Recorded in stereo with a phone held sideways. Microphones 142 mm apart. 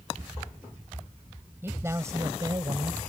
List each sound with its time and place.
1.6 s a man speaking: 15° right (ahead or behind); by 3.1 s 35° right (ahead or behind)